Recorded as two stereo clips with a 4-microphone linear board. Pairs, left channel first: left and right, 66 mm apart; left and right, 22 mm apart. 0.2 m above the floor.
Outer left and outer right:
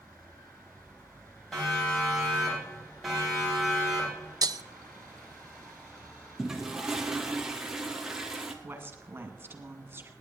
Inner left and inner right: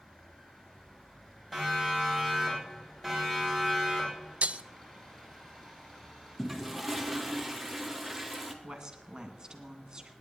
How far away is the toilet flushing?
About 1.7 m.